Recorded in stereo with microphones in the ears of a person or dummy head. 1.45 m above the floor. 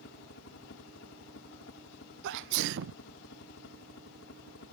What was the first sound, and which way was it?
A helicopter, 55° left (ahead or behind).